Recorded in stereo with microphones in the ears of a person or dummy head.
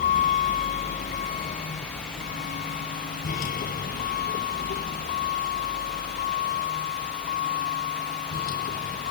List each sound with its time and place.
0.0 s a vehicle: 40° left (ahead or behind); by 9.1 s 45° left (ahead or behind)